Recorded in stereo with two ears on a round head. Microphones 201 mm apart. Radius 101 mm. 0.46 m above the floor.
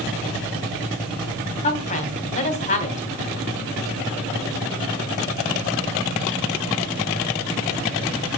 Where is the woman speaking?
30° left (ahead or behind), 3 m.